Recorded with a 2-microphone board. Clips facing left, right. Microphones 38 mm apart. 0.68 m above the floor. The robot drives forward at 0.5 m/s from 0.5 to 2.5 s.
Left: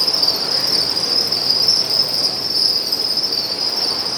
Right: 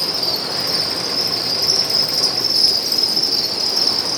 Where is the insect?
40° right (ahead or behind), 1.8 m; by 4.2 s 65° right (ahead or behind), 1.3 m.